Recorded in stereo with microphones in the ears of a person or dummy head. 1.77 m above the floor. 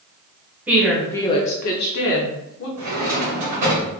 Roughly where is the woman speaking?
Centre.